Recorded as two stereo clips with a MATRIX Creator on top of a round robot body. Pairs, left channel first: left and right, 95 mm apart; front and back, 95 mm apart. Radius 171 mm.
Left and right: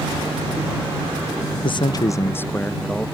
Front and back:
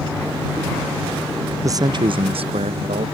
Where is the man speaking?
120° left; by 3.1 s 175° left.